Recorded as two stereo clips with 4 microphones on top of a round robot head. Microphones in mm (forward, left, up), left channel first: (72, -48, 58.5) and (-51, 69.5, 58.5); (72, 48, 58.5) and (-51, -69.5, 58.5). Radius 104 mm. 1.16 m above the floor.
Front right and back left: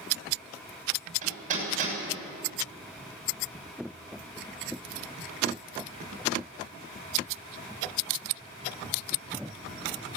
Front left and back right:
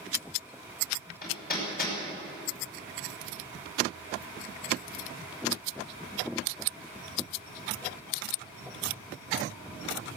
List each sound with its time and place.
1.2 s hammering: 85° left, 6 m